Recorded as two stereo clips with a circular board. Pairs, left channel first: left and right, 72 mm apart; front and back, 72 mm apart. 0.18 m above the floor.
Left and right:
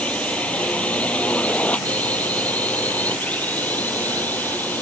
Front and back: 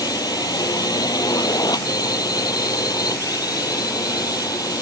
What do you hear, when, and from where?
0.0 s a drone: 20° left; by 4.8 s 25° left